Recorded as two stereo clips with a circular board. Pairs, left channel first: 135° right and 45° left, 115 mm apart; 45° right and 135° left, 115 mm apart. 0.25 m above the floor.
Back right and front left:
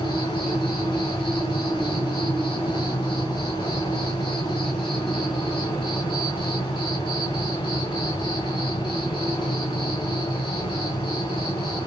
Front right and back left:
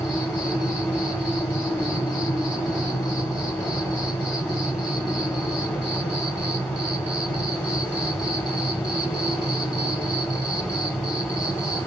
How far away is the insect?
About 1.2 m.